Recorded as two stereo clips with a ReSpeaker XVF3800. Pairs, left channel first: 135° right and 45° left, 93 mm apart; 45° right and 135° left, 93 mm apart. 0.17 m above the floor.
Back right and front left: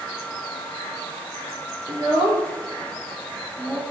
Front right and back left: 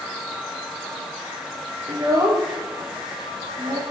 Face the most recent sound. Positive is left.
turn(degrees=110)